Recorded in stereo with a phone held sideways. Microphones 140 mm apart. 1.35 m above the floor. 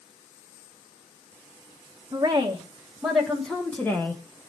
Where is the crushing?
No crushing in this recording.